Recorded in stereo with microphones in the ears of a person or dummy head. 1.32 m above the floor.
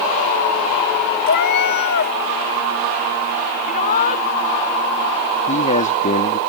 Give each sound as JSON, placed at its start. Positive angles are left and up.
{"t": 1.3, "sound": "a cat meowing", "side_deg": 50}
{"t": 3.6, "sound": "a shout", "side_deg": 55}
{"t": 5.5, "sound": "a man speaking", "side_deg": 45}